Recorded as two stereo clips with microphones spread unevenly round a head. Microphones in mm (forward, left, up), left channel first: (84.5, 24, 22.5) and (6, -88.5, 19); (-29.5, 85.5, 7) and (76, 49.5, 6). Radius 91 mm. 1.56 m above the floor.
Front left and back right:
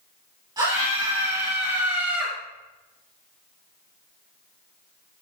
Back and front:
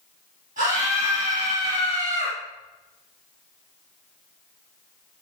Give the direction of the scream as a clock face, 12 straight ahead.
2 o'clock.